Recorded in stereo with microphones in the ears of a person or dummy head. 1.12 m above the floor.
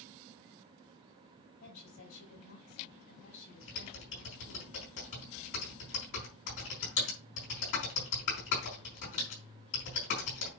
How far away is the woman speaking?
About 5 m.